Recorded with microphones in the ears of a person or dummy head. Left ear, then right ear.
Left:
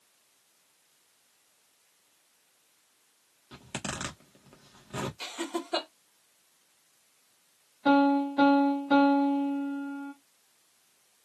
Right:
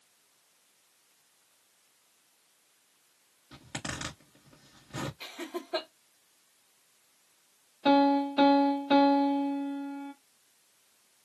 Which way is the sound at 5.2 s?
80° left.